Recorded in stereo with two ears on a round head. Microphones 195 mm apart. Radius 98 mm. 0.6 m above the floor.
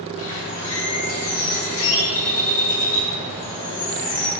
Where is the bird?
75° left (ahead or behind), 3.5 m.